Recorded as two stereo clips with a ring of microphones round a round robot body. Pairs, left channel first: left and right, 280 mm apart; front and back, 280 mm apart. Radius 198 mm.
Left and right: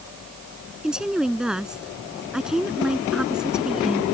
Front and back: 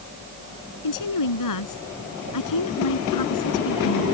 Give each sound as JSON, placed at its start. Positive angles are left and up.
{"t": 0.8, "sound": "a woman speaking", "azimuth_deg": 0}